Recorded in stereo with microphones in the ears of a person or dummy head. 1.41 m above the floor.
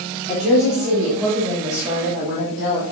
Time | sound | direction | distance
0.3 | a woman speaking | centre (ahead or behind) | 3 m